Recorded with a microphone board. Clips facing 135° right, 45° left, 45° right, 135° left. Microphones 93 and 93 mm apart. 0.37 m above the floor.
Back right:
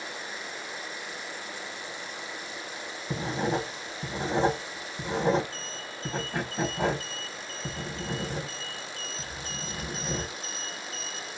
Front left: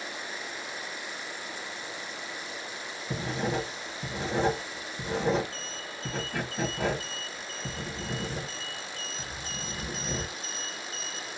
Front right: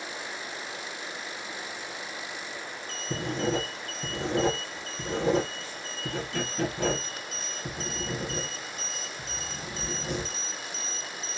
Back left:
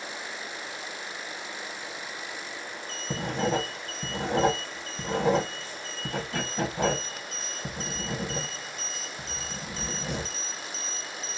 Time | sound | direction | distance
3.1 | writing | 170° left | 1.0 m